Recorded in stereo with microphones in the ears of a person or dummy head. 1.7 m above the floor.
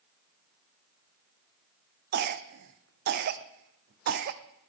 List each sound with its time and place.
2.1 s a cough: 55° right (ahead or behind), 0.6 m